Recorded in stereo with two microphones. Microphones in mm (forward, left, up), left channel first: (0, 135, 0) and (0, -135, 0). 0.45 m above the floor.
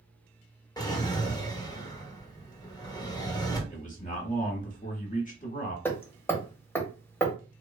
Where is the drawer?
15° left (ahead or behind), 0.6 m.